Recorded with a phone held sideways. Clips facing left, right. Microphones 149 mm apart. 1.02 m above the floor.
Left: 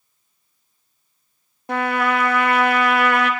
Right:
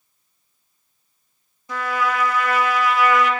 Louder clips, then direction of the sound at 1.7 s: Left 3 dB; 65° left (ahead or behind).